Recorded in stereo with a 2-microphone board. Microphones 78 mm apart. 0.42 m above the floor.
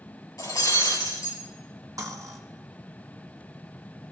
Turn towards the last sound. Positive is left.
turn(degrees=-45)  # may be behind; listen again after turning